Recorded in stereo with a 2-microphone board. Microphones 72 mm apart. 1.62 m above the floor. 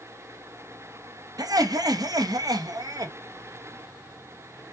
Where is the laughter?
65° right (ahead or behind), 0.7 m.